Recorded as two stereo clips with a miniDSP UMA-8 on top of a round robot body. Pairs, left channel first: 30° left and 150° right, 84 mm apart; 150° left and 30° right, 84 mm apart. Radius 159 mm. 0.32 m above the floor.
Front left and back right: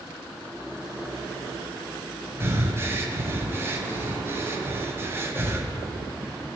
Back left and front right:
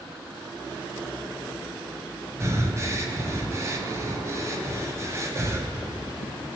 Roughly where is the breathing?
Right.